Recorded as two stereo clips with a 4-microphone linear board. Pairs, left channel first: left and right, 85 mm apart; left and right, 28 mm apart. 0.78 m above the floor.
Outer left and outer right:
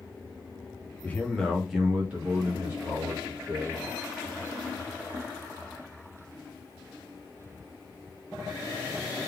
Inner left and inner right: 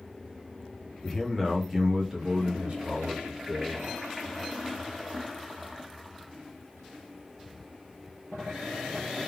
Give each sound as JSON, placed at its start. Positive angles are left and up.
{"t": 1.0, "sound": "a man speaking", "side_deg": 20, "distance_m": 0.9}